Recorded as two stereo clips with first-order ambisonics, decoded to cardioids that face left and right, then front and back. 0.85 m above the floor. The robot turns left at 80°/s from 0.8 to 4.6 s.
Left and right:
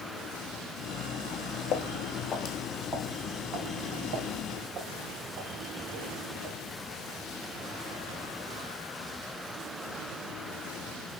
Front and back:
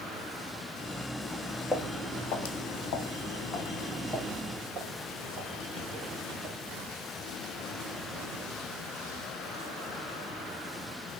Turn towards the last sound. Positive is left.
turn(degrees=-130)